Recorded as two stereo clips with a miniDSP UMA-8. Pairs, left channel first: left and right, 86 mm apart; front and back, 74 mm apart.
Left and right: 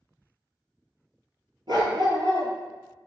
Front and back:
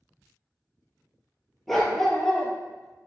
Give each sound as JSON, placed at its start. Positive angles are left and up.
{"t": 1.7, "sound": "a dog barking", "azimuth_deg": -85, "distance_m": 0.7}